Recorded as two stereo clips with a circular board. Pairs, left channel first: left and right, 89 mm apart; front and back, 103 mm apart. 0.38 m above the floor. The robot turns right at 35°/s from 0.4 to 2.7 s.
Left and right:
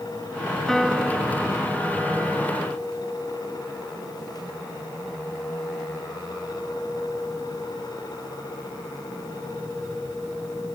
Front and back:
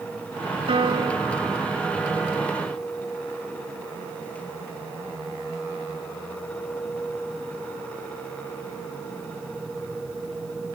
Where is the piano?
175° left; by 2.5 s 125° right.